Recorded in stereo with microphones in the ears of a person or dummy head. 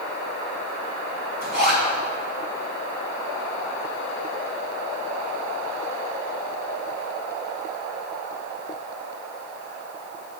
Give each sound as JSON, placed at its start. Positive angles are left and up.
{"t": 1.4, "sound": "a zipper", "side_deg": 55, "distance_m": 3.0}